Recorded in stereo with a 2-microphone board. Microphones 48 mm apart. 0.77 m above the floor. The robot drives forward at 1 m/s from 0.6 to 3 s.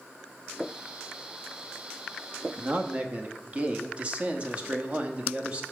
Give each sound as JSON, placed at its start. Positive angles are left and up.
{"t": 2.6, "sound": "a man speaking", "side_deg": -35, "distance_m": 0.8}